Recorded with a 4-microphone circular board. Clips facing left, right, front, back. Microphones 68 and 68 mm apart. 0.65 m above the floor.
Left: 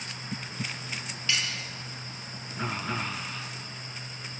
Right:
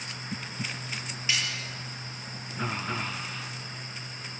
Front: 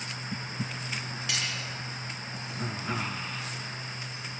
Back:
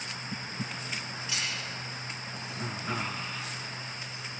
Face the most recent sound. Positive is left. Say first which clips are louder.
# even, front 2 dB
turn(degrees=-20)